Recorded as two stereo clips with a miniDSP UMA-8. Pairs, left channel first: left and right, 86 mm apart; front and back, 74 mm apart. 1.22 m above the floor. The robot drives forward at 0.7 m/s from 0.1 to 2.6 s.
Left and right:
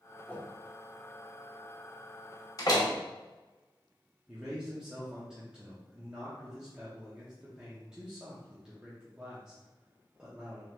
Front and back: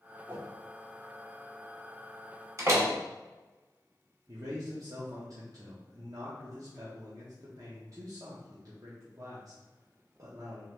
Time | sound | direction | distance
0.3 | a whoosh | 150° left | 0.8 m
2.6 | a door slam | 135° left | 1.1 m
4.3 | a man speaking | 170° right | 0.9 m